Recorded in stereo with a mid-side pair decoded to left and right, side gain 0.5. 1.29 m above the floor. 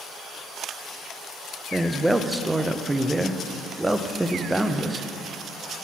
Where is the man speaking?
10° right, 0.5 m.